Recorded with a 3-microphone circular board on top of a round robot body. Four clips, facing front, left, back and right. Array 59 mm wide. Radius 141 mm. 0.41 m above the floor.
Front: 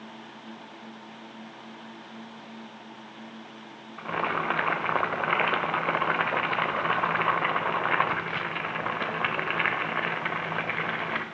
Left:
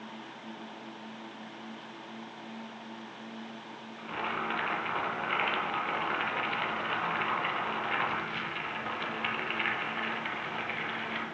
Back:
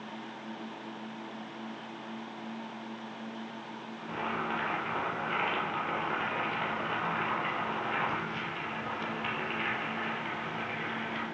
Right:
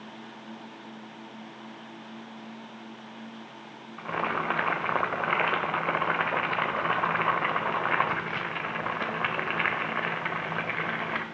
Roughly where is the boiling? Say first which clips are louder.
Right 5 dB, front 7 dB; ahead right.